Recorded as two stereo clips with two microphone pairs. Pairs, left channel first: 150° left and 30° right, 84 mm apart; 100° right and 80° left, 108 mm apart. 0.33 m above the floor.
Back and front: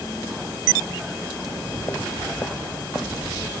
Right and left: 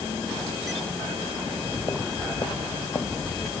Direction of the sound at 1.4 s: 150° right.